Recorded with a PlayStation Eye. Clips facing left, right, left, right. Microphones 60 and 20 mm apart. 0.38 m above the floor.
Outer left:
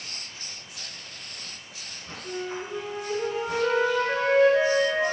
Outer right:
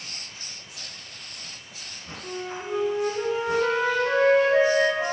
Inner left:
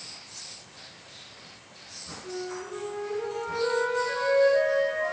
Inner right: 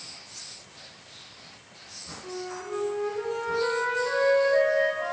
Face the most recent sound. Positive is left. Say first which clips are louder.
# even, even
turn(degrees=-70)  # may be behind; listen again after turning